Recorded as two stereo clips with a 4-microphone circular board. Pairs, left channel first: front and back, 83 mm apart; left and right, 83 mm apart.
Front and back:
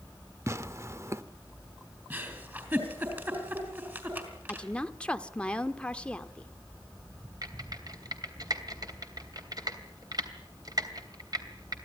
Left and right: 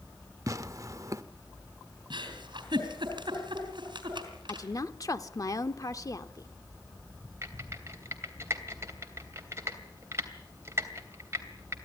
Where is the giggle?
115° right, 4 m.